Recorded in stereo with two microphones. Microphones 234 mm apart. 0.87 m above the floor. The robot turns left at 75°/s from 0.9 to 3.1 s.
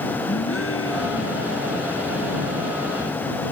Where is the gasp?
110° left; by 1.6 s 60° left.